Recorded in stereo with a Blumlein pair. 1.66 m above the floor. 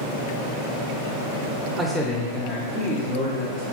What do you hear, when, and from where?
1.8 s a man speaking: 5° right, 0.8 m; by 3.6 s 45° left, 2.5 m